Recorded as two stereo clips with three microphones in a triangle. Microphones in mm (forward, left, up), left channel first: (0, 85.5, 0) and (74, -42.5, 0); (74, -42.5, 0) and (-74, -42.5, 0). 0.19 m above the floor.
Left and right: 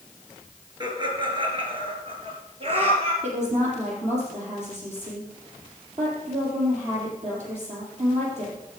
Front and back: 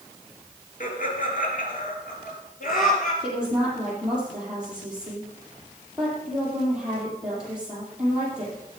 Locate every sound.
0.8 s laughter: straight ahead, 3.5 m; by 3.1 s 15° right, 4.5 m
3.2 s a woman speaking: 95° right, 6 m